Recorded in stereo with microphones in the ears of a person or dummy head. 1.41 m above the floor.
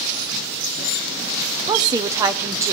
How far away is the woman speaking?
About 0.8 m.